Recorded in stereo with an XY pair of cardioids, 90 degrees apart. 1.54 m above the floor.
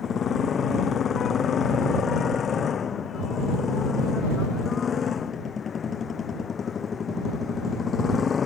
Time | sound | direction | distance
0.0 | a motorcycle | 60° left | ?